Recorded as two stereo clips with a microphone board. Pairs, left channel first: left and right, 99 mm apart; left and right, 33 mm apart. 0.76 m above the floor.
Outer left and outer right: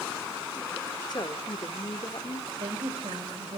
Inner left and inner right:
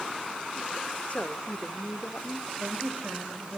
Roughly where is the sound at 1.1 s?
Left.